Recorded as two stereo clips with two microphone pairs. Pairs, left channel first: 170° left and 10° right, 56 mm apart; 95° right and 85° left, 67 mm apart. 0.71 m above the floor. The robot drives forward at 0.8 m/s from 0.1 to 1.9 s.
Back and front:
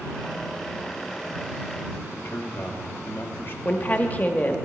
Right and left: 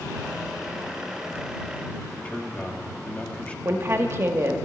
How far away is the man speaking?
About 1.3 m.